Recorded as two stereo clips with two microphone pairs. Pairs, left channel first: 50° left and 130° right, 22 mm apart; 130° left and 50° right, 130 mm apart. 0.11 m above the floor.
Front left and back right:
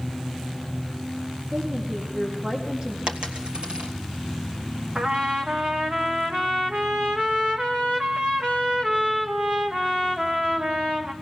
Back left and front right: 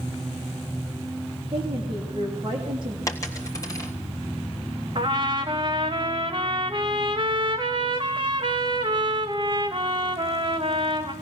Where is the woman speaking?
95° right, 5.5 m.